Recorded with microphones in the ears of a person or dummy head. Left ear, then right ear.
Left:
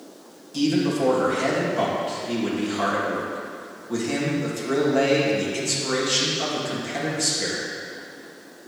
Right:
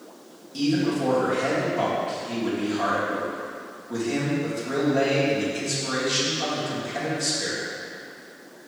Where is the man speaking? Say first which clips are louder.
Left 2 dB; 80° left, 2.5 m.